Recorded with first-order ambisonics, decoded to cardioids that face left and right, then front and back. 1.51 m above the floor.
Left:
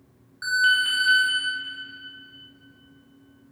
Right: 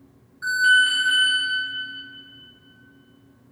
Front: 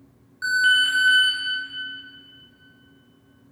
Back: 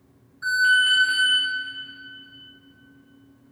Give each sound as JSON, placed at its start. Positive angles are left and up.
{"t": 0.4, "sound": "an alarm", "azimuth_deg": 40, "distance_m": 2.5}